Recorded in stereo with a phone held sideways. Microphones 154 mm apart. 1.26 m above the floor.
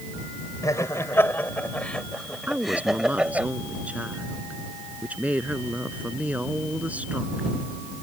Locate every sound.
0.6 s laughter: 20° left (ahead or behind); by 3.5 s 10° right (ahead or behind)
2.5 s a woman speaking: 10° right (ahead or behind)